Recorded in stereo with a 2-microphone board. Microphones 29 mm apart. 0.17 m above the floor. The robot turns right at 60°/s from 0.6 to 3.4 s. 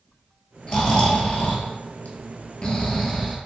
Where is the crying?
No crying in this recording.